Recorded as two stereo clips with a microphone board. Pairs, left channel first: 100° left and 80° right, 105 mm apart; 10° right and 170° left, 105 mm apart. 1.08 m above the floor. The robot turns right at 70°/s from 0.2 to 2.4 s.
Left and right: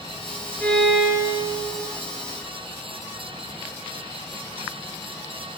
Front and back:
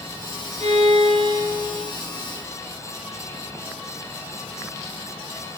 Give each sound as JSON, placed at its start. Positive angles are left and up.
{"t": 0.6, "sound": "a violin", "azimuth_deg": 175, "distance_m": 7.5}